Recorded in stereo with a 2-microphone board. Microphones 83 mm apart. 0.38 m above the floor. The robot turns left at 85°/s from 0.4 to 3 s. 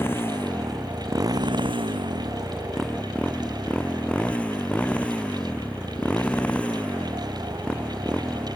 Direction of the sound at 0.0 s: 30° left.